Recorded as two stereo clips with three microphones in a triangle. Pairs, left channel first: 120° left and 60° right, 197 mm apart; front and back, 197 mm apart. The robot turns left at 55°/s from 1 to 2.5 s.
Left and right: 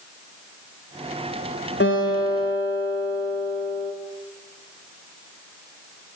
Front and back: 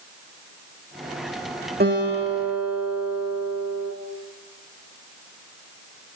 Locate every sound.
1.8 s a guitar: 140° left, 9 m; by 3.9 s 105° left, 9 m